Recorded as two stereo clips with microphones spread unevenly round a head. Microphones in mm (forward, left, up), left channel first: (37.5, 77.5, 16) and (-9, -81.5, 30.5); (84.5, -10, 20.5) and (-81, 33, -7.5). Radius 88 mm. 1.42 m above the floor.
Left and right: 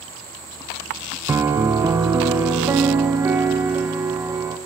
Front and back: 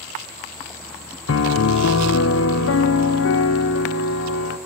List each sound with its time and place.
1.3 s a piano: 30° right, 0.5 m